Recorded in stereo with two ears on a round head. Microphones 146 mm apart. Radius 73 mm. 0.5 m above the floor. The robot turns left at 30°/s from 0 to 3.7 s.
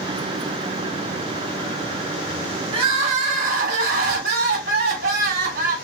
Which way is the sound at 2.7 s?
35° right (ahead or behind).